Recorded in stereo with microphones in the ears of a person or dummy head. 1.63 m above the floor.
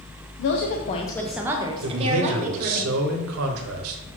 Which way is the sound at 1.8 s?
80° right.